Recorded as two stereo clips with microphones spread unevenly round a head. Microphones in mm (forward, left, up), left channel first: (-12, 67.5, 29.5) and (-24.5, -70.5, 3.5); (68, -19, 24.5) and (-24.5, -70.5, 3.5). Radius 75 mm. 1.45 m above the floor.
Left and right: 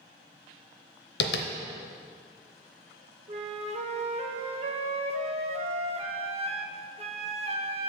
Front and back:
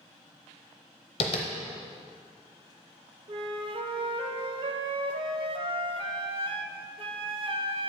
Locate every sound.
1.2 s tapping: 80° left, 0.7 m
3.3 s a flute: 130° right, 0.6 m